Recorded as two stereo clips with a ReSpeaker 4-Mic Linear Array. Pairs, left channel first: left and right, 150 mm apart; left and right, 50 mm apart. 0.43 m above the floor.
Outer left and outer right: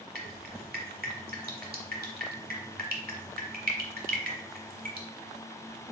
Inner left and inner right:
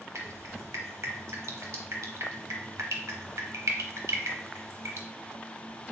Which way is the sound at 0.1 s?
85° right.